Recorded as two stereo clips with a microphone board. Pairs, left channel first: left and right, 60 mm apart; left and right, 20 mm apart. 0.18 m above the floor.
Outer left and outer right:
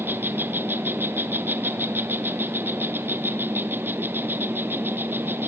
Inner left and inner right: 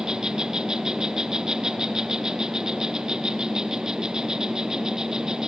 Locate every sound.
0.0 s an insect: 35° right (ahead or behind), 1.2 m